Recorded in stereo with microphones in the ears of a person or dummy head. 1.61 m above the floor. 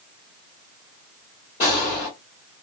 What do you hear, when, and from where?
1.6 s a gunshot: 25° left (ahead or behind), 1.5 m